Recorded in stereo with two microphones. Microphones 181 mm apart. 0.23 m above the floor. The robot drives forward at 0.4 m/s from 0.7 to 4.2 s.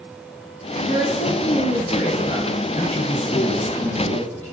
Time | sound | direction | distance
0.8 | a woman speaking | 60° left (ahead or behind) | 2 m
2.8 | a man speaking | 45° left (ahead or behind) | 3 m